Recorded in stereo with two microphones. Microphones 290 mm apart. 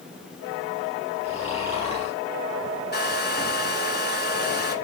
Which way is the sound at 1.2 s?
20° left (ahead or behind).